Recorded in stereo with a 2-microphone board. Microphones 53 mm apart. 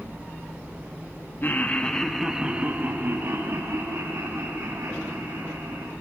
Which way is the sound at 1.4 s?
35° left (ahead or behind).